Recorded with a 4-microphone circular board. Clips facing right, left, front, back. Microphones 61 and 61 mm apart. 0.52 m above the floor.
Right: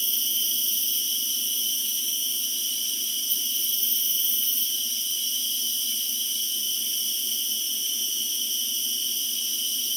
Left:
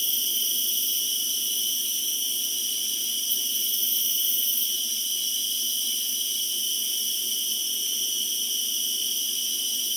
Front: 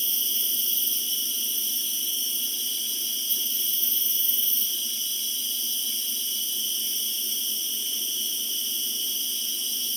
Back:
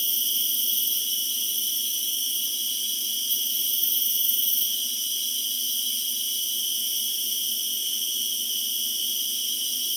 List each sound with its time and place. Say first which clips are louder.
0.0 s an insect: even, back 2 dB; 50° right, 3.5 m